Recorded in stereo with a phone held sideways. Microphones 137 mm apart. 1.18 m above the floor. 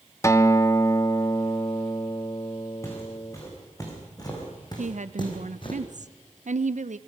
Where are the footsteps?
20° left (ahead or behind), 6.5 m; by 5.8 s 40° left (ahead or behind), 3.5 m.